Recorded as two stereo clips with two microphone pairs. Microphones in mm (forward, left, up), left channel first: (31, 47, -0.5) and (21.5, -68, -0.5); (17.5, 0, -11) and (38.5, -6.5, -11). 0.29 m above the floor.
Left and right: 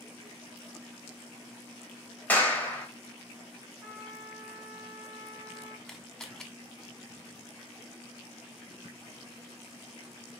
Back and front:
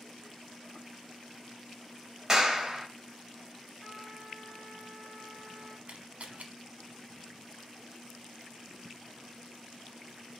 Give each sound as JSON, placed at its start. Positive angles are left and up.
{"t": 2.3, "sound": "a clap", "azimuth_deg": 20, "distance_m": 1.0}
{"t": 3.8, "sound": "a trumpet", "azimuth_deg": -170, "distance_m": 1.8}
{"t": 5.9, "sound": "a camera shutter", "azimuth_deg": 0, "distance_m": 0.6}